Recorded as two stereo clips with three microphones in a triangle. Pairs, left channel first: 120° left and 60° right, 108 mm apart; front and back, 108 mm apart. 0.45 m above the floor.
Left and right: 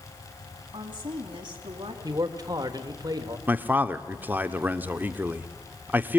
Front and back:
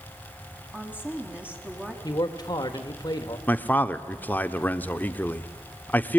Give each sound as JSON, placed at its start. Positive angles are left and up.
{"t": 0.7, "sound": "a woman speaking", "azimuth_deg": -105, "distance_m": 4.5}
{"t": 2.0, "sound": "a man speaking", "azimuth_deg": -25, "distance_m": 1.4}
{"t": 3.5, "sound": "a man speaking", "azimuth_deg": -30, "distance_m": 1.0}